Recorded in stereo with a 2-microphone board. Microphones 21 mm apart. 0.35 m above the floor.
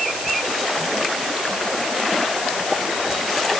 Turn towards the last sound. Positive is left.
No sound to turn to.